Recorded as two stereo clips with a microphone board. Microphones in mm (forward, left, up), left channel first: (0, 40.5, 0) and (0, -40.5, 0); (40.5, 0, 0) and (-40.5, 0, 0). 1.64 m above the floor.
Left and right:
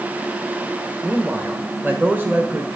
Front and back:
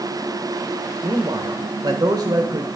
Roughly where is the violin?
No violin in this recording.